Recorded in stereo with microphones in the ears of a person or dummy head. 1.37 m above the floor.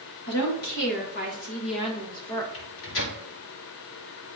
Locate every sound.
0.3 s a woman speaking: 65° left (ahead or behind), 2.5 m; by 2.4 s 20° left (ahead or behind), 1.7 m
2.5 s a microwave: 75° left (ahead or behind), 2 m